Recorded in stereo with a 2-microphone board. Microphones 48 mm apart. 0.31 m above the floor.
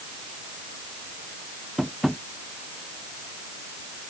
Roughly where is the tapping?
Centre.